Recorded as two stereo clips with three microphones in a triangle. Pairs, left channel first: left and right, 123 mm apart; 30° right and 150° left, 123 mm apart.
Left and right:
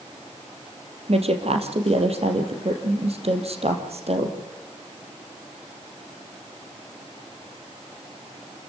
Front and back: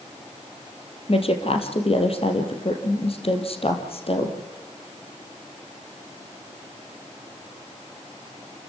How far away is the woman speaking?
About 3 m.